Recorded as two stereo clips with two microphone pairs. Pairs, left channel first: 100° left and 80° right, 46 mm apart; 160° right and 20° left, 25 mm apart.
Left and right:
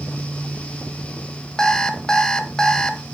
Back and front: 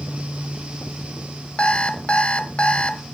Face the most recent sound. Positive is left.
turn(degrees=170)